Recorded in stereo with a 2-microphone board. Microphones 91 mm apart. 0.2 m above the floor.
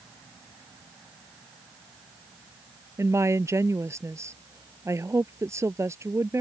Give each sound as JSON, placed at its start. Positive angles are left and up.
{"t": 3.0, "sound": "a woman speaking", "side_deg": -30}